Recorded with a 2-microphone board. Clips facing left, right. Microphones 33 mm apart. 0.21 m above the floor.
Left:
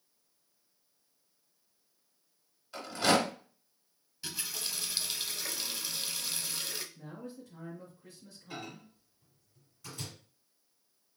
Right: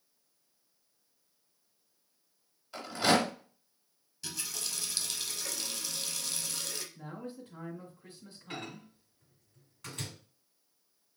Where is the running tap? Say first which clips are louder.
Left 1 dB; 20° left (ahead or behind), 0.8 m.